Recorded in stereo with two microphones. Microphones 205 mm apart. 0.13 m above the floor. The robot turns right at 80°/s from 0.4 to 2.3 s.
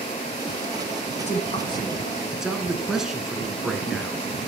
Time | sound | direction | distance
1.2 | a man speaking | 95° left | 1.7 m